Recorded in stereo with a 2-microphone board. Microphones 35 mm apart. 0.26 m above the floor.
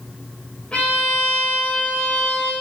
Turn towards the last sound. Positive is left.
turn(degrees=30)  # may be behind; listen again after turning